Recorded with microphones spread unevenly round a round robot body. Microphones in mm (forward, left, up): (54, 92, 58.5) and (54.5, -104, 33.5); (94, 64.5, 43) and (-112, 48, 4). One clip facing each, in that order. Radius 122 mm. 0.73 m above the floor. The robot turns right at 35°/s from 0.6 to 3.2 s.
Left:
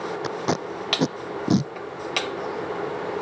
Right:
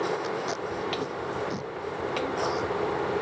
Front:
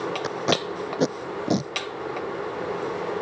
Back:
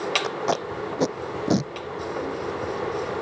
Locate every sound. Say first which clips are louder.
0.2 s tape being pulled: left 4 dB, front 1 dB; 70° left; by 1.7 s 110° left